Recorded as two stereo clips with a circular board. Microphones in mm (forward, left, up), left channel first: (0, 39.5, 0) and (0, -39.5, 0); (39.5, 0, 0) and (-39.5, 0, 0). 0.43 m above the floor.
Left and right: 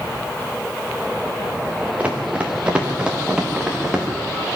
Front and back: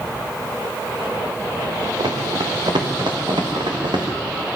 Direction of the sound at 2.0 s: 160° right.